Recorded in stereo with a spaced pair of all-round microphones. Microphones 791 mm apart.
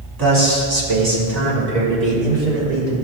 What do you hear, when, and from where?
0.2 s a man speaking: 25° right (ahead or behind), 2 m; by 3.0 s 80° right, 4 m